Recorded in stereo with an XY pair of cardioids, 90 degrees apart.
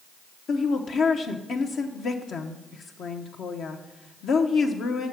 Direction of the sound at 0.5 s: 70° left.